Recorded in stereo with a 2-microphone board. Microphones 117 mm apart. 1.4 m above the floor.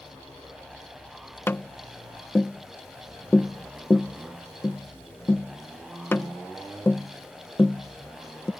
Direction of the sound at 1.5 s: 20° left (ahead or behind).